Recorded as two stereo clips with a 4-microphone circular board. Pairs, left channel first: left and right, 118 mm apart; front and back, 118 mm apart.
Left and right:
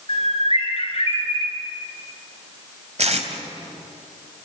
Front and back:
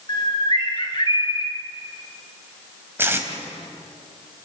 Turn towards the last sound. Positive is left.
turn(degrees=-110)